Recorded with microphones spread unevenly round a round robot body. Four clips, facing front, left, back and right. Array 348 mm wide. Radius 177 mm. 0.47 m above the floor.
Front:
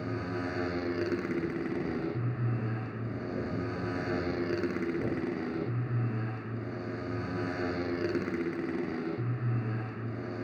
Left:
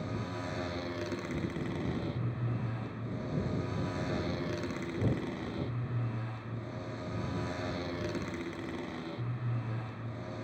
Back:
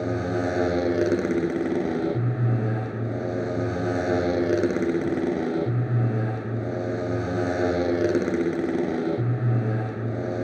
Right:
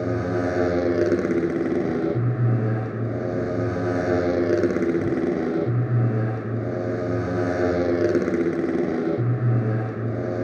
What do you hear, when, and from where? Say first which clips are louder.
0.0 s a motorcycle: right 15 dB, back 9 dB; 115° right